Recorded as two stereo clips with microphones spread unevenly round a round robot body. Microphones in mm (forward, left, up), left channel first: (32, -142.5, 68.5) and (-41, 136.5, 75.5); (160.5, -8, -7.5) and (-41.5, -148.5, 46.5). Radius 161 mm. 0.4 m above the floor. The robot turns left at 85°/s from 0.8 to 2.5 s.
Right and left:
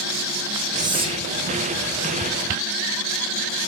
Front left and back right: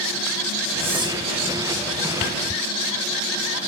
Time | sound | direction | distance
0.8 | whispering | 160° left | 1.0 m